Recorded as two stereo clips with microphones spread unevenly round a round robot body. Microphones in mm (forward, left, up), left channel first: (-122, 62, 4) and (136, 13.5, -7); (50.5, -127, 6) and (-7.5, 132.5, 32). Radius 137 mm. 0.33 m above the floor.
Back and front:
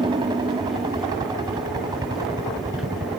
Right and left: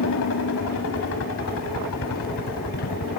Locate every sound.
0.0 s a helicopter: 80° right; by 3.2 s 85° right